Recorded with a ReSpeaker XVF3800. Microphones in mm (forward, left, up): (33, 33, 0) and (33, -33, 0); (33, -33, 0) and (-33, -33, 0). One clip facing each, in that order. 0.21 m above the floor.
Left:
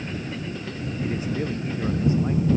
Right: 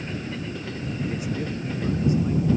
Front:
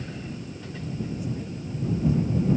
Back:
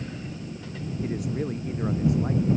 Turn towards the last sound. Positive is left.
turn(degrees=155)